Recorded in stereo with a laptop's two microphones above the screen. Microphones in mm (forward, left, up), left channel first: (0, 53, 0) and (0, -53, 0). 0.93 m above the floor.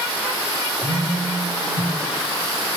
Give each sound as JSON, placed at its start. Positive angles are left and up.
{"t": 0.8, "sound": "a phone buzzing", "side_deg": -50, "distance_m": 3.0}